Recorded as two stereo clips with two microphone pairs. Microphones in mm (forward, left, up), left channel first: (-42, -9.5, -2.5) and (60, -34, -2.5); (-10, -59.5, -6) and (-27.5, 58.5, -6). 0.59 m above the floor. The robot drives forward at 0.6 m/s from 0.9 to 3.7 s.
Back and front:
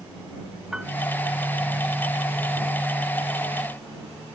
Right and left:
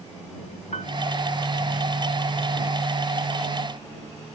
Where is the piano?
95° right.